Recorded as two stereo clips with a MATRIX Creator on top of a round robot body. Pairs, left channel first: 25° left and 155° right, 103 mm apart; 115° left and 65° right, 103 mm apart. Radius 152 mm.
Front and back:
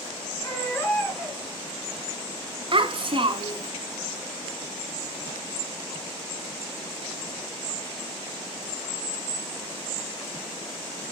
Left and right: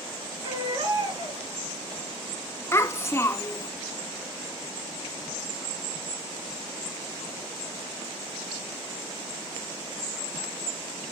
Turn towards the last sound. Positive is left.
turn(degrees=175)